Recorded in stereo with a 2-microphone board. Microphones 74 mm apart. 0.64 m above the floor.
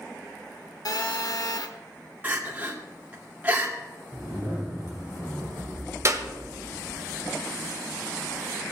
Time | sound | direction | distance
0.8 | a phone buzzing | 60° left (ahead or behind) | 0.9 m
2.2 | crying | 20° right (ahead or behind) | 1.7 m
4.1 | a zipper | 70° left (ahead or behind) | 5.5 m
6.0 | a clap | 40° right (ahead or behind) | 1.2 m